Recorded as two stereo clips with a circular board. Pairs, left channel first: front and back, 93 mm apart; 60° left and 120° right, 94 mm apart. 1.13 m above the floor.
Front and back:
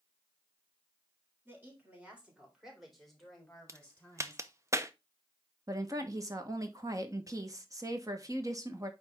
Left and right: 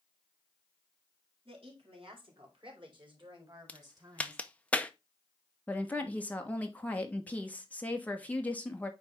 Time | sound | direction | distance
1.4 | a woman speaking | 115° right | 3.5 m
3.7 | a crack | 135° left | 0.6 m
5.7 | a woman speaking | 135° left | 1.3 m